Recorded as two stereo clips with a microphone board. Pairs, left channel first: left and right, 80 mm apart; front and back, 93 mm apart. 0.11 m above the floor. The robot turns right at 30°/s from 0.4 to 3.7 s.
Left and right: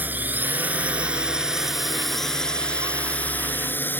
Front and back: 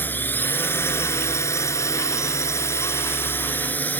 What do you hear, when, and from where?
0.0 s a drone: 45° right; by 4.0 s 50° left